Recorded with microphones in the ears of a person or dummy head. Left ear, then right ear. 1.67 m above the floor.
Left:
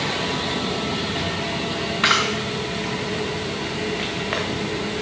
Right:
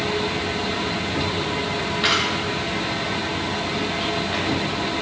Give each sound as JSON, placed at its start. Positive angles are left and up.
{"t": 2.0, "sound": "a camera shutter", "side_deg": 30, "distance_m": 2.0}